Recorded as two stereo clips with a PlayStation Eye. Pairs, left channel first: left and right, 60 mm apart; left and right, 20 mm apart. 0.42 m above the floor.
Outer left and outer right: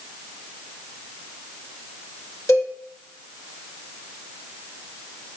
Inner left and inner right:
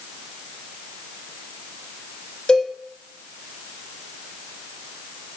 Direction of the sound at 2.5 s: 50° left (ahead or behind).